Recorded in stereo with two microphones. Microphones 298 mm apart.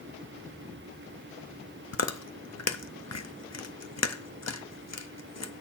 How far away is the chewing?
About 0.6 m.